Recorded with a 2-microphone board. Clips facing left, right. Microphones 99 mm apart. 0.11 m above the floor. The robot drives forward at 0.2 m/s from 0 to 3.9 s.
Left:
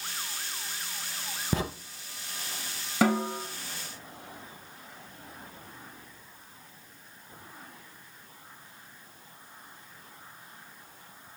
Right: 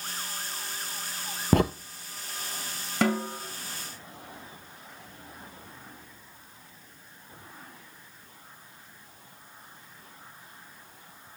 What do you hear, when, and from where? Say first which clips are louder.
1.5 s a crack: right 8 dB; 65° right (ahead or behind), 0.9 m
3.0 s a snare drum: left 1 dB; 5° left (ahead or behind), 1.8 m